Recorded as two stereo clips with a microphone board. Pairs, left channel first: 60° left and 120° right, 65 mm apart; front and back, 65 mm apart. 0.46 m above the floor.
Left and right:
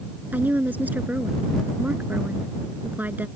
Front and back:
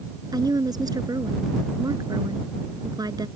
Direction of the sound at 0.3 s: 175° left.